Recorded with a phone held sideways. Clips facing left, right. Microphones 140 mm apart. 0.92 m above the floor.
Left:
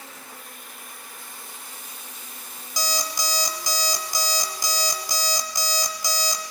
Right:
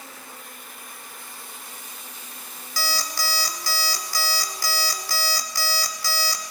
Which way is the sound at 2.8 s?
20° left (ahead or behind).